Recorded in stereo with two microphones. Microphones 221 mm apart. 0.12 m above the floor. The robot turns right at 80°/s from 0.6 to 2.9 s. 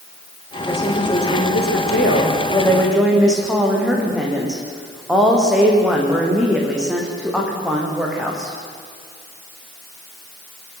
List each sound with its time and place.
0.7 s a woman speaking: 5° left, 6 m; by 8.5 s 175° right, 6 m